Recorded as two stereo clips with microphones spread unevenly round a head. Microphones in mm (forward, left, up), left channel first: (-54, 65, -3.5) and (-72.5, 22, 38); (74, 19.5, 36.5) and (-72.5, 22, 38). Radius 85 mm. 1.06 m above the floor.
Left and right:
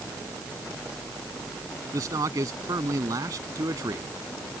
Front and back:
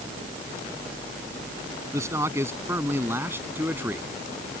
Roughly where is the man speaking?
Right.